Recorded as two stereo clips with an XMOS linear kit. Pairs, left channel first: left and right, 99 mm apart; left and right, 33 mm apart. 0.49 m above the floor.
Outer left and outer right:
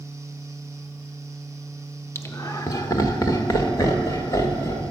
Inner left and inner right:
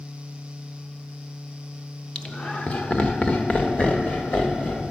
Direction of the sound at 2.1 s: 25° left (ahead or behind).